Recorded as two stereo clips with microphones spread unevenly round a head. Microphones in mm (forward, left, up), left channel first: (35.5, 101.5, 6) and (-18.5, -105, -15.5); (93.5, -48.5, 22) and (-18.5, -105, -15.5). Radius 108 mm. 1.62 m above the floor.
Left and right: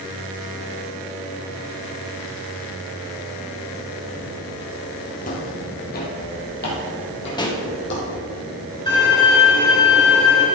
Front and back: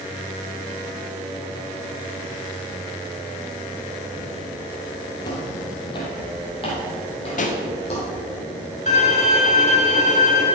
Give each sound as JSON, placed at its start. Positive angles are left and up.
{"t": 5.2, "sound": "footsteps", "azimuth_deg": 45, "distance_m": 2.5}
{"t": 7.4, "sound": "a pop", "azimuth_deg": 5, "distance_m": 1.3}
{"t": 8.9, "sound": "a violin", "azimuth_deg": 5, "distance_m": 3.0}